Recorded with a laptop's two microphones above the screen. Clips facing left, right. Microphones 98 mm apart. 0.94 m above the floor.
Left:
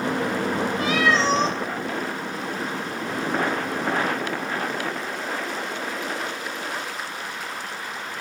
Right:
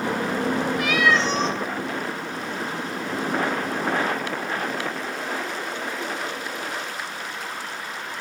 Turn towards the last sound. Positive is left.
turn(degrees=30)  # may be behind; listen again after turning